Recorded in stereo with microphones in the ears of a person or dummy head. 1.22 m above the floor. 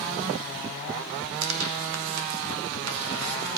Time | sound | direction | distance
1.4 | tearing paper | 80° right | 1.1 m